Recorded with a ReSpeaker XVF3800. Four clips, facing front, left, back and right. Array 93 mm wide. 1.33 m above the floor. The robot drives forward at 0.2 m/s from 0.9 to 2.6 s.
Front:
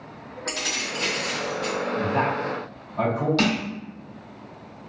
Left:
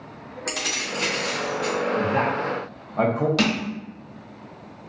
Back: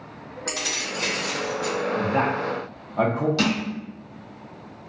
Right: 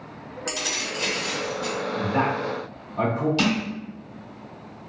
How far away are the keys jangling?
About 1.8 m.